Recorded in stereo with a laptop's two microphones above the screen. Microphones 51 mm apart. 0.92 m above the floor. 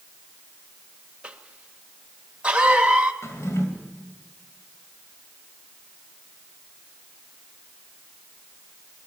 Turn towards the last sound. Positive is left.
turn(degrees=65)  # may be behind; listen again after turning